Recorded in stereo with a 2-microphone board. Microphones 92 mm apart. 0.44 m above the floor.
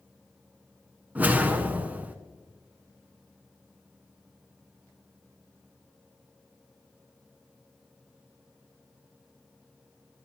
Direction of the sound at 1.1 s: 15° right (ahead or behind).